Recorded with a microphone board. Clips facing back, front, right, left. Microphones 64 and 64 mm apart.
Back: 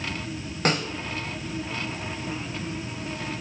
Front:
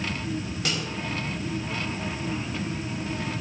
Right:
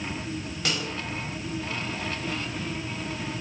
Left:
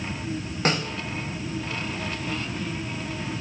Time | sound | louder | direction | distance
0.7 | a snare drum | back 8 dB, left 6 dB | 135° left | 3 m